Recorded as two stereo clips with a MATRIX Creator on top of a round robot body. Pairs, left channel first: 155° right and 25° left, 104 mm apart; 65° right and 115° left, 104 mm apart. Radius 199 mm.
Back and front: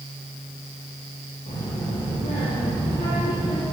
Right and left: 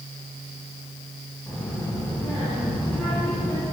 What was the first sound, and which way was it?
A child speaking, 145° right.